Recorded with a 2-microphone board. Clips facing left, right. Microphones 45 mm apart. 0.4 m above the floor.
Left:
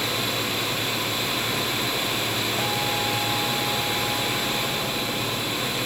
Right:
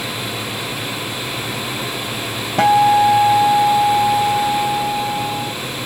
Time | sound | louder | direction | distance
2.6 | a guitar | right 14 dB | 75° right (ahead or behind) | ?